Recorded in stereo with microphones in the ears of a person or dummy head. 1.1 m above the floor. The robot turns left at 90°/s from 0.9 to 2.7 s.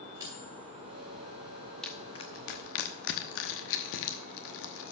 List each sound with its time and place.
0.2 s cutlery clinking: 15° right (ahead or behind), 3 m; by 1.3 s 15° left (ahead or behind), 3 m
1.8 s crushing: 5° left (ahead or behind), 0.9 m; by 4.9 s 70° left (ahead or behind), 0.9 m